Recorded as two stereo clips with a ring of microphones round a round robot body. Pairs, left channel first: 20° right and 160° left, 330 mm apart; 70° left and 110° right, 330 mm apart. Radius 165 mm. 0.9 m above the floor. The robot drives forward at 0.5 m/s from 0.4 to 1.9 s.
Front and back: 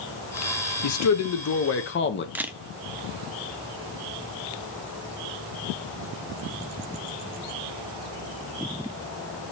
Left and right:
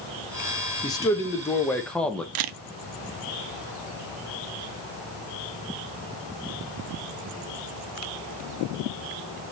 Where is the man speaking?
10° right, 1.4 m; by 2.2 s 15° right, 1.0 m.